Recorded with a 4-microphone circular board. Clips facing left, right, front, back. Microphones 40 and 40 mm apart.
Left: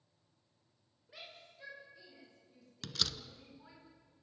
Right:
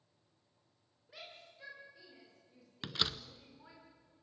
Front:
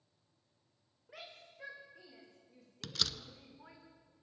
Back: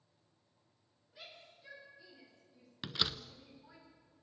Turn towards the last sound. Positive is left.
turn(degrees=-130)